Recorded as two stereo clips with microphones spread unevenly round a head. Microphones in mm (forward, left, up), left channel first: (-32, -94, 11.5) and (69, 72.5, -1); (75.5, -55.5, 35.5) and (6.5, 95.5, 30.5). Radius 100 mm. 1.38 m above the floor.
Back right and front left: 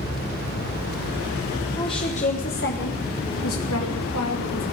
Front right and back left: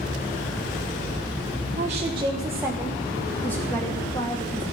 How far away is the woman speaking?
About 1.3 m.